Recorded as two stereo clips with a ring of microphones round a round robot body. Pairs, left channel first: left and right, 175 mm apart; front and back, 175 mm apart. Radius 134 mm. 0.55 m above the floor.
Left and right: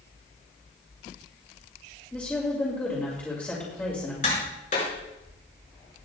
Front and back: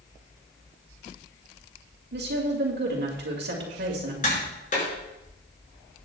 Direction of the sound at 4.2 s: 45° left.